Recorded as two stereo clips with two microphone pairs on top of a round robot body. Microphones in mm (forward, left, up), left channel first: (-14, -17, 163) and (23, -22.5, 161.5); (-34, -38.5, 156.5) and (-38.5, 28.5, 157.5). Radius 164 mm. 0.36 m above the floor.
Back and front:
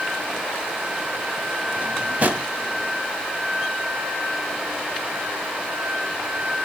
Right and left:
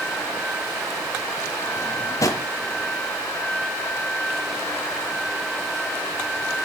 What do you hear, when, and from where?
1.8 s a drawer: 50° right, 1.3 m